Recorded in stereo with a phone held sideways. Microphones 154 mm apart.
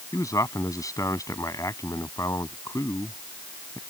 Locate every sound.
0.1 s a man speaking: 20° left (ahead or behind)